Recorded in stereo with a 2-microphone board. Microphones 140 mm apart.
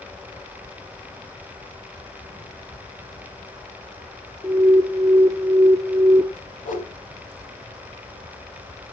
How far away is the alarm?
About 0.8 m.